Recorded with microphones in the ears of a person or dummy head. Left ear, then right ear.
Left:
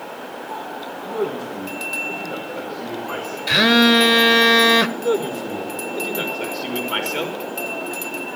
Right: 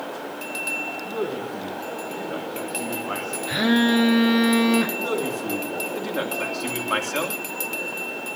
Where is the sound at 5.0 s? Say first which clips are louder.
Left 4 dB; 60° right (ahead or behind), 3 m.